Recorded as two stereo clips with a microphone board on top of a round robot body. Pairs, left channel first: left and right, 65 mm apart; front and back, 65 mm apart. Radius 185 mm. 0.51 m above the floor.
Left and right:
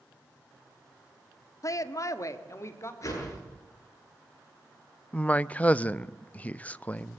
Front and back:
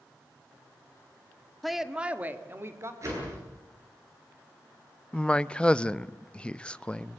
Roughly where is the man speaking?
Ahead left.